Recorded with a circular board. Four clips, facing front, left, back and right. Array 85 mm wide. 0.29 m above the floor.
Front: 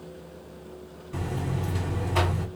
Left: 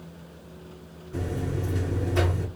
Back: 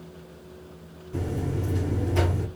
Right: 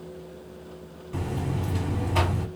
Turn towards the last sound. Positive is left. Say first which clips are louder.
# even, back 2 dB
turn(degrees=-50)